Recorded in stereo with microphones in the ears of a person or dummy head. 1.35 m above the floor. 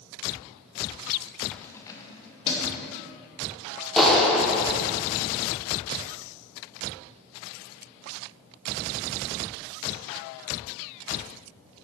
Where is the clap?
5° left (ahead or behind), 0.8 m.